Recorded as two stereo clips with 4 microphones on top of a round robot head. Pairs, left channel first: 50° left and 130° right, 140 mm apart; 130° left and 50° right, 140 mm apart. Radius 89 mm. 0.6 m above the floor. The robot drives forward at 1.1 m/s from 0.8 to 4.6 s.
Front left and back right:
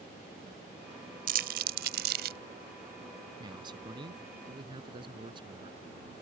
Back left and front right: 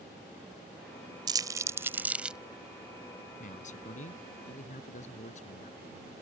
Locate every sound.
1.3 s crumpling: 110° right; by 2.4 s 130° right
3.4 s a man speaking: 170° left